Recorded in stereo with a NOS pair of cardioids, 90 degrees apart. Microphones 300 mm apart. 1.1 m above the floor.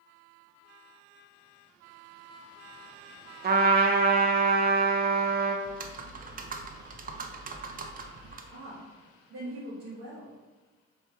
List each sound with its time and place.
3.4 s a trumpet: 30° right, 0.7 m
5.7 s typing on a keyboard: 30° right, 0.5 m
8.5 s a woman speaking: 50° right, 1.3 m